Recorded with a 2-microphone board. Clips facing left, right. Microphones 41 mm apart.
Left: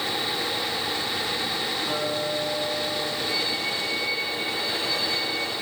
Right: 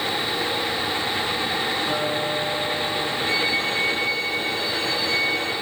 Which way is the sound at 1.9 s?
15° right (ahead or behind).